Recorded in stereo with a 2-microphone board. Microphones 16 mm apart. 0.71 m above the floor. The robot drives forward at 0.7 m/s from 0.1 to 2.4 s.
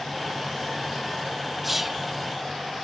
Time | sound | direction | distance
1.6 | whispering | 5° right (ahead or behind) | 1.1 m